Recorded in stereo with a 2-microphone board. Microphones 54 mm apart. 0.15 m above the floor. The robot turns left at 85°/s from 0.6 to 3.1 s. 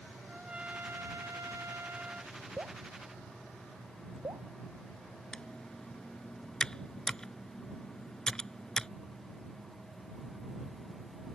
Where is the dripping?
40° right (ahead or behind); by 4.5 s 85° right.